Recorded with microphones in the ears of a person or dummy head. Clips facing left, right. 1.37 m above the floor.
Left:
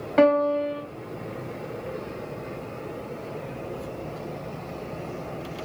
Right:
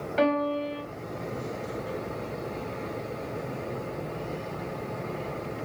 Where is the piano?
60° left (ahead or behind), 0.8 m.